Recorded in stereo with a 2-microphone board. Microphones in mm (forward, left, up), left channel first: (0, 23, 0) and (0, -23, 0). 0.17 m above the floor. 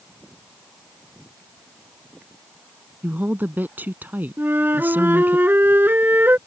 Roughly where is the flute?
Right.